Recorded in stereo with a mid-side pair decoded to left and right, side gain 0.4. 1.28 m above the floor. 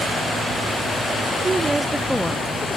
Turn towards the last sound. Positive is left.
turn(degrees=50)